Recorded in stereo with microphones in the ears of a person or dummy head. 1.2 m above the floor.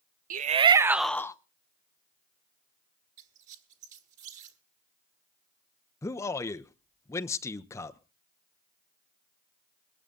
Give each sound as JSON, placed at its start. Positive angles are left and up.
{"t": 0.3, "sound": "a shout", "side_deg": -50, "distance_m": 0.7}
{"t": 3.2, "sound": "a squeak", "side_deg": -40, "distance_m": 2.0}
{"t": 6.0, "sound": "a man speaking", "side_deg": 15, "distance_m": 0.9}